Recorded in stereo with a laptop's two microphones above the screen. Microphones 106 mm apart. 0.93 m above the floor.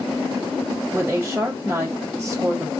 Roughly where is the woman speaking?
Right.